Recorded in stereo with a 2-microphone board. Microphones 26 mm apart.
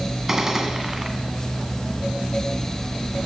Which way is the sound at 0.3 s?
15° right (ahead or behind).